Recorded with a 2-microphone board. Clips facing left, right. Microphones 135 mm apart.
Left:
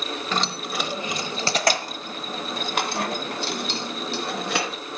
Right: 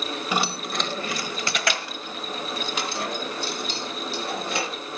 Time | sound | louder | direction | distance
0.3 | keys jangling | right 1 dB | 15° right (ahead or behind) | 0.8 m